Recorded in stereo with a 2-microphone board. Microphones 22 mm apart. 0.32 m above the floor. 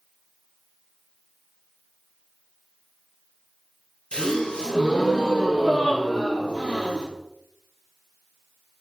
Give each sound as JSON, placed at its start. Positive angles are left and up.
{"t": 4.1, "sound": "a gasp", "side_deg": 45, "distance_m": 3.0}